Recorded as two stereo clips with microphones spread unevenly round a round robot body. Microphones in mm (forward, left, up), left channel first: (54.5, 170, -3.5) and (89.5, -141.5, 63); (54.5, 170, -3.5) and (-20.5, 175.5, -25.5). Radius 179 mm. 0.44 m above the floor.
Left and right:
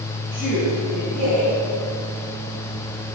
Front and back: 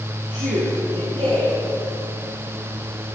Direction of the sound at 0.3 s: Straight behind.